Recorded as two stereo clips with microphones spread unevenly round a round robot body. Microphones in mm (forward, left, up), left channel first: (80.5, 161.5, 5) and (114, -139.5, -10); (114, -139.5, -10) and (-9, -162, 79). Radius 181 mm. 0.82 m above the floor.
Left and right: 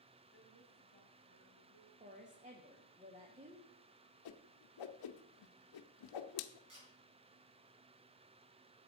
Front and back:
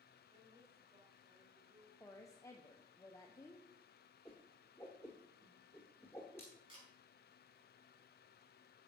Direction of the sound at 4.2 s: 100° left.